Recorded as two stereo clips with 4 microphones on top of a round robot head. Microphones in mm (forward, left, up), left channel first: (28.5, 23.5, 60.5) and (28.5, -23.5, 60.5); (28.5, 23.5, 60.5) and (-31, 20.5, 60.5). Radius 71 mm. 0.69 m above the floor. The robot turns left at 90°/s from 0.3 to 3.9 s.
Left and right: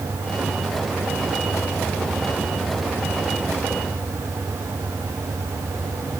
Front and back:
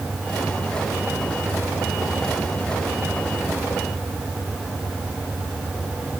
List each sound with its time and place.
Only background noise.